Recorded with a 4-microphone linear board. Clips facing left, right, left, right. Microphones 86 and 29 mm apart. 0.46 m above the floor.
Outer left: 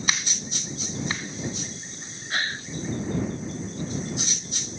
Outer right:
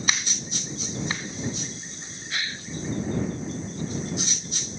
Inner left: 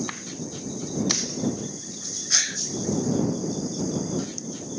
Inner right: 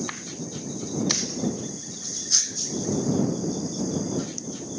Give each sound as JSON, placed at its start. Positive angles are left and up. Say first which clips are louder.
{"t": 2.3, "sound": "a gasp", "louder": "outer left 4 dB, inner left 3 dB", "side_deg": 40}